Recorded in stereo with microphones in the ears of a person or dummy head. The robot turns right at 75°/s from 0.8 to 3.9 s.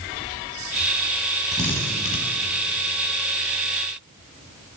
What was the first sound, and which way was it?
A drill, centre (ahead or behind).